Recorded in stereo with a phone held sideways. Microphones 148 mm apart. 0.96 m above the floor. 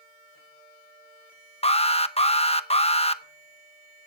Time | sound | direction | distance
1.6 | an alarm | 40° left (ahead or behind) | 0.7 m